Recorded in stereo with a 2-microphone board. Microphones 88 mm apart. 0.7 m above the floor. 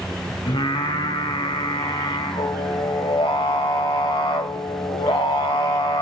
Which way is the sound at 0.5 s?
70° left (ahead or behind).